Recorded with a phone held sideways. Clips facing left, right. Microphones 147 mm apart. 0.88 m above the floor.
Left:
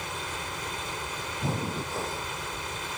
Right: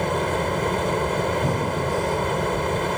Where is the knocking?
I don't hear knocking.